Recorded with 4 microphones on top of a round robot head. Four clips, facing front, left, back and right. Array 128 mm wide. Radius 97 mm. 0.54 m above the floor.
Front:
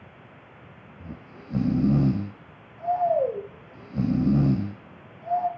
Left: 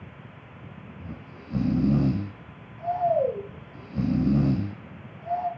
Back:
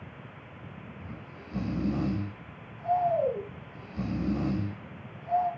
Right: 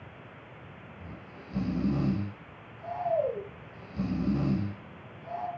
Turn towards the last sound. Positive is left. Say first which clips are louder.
# left 4 dB, front 2 dB
turn(degrees=35)